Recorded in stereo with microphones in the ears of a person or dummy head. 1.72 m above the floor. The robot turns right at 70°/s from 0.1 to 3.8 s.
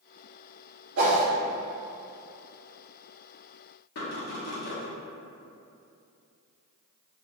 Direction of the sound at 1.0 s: 75° right (ahead or behind).